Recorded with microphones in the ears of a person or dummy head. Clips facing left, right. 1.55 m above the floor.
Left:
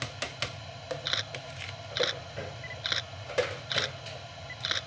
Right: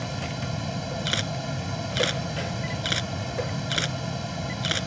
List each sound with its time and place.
0.0 s a fan: 65° right (ahead or behind)
1.1 s a camera shutter: 35° right (ahead or behind)